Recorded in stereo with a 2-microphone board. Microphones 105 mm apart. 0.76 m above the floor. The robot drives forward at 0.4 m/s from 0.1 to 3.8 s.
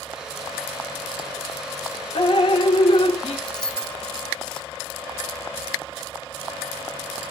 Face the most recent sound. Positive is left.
turn(degrees=10)  # may be behind; listen again after turning